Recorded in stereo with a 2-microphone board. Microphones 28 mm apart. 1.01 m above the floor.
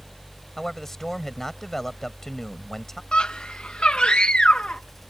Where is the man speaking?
15° left (ahead or behind).